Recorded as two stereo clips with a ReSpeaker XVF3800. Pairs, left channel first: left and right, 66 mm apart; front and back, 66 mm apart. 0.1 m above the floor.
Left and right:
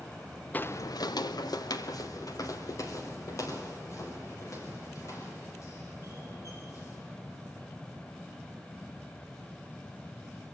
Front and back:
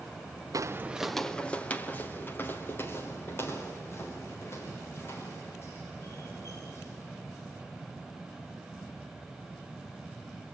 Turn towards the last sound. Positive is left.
turn(degrees=50)